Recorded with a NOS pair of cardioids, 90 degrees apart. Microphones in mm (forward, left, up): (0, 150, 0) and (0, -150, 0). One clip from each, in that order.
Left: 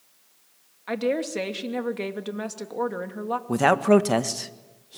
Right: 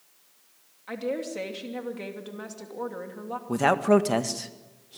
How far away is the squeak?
I don't hear a squeak.